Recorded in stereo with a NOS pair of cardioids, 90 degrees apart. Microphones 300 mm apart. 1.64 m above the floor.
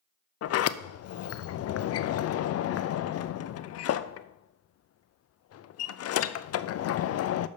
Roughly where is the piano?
No piano in this recording.